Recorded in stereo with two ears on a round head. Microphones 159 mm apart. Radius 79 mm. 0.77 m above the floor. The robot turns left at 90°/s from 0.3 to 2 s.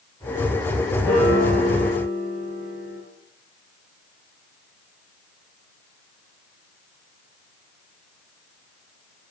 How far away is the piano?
About 2.0 m.